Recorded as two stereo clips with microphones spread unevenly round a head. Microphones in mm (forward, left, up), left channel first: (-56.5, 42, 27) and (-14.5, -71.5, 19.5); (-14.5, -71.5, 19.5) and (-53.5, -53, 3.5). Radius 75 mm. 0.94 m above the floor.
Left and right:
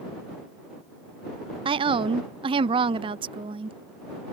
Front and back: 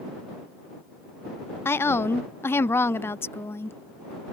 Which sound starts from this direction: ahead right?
A woman speaking, at 1.6 s.